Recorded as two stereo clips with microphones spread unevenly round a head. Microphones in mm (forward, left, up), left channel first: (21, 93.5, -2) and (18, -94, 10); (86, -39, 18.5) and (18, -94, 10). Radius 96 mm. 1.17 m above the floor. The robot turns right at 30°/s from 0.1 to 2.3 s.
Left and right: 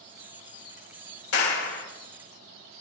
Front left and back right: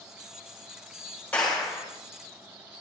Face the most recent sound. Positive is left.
turn(degrees=150)